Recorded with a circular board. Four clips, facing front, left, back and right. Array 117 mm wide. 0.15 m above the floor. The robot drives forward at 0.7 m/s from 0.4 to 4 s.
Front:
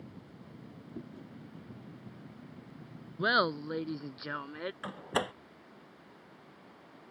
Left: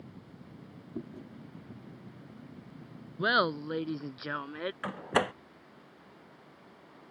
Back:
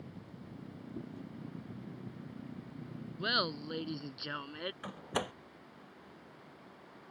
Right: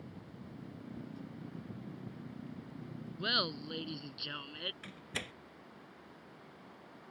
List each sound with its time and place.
0.9 s chewing: 85° left; by 1.3 s 90° left
3.2 s laughter: 50° left; by 4.7 s 75° left
4.8 s a door slam: 80° left